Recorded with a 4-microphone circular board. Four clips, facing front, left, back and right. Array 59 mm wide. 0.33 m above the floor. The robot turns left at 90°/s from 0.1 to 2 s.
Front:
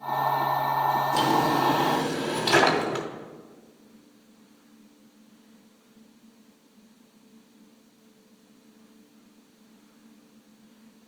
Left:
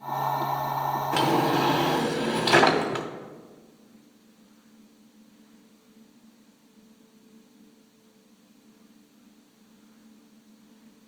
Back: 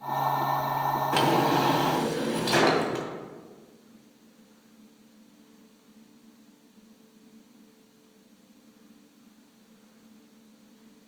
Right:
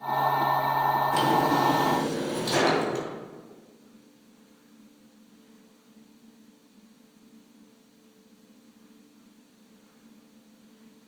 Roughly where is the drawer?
Behind left.